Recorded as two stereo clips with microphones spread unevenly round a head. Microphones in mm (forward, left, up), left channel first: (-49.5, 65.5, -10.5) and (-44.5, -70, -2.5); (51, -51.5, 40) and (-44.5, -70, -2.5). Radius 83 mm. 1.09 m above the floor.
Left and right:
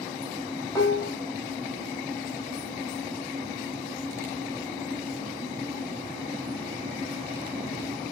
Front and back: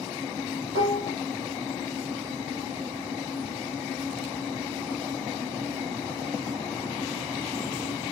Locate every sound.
0.8 s dishes clattering: 165° left, 1.0 m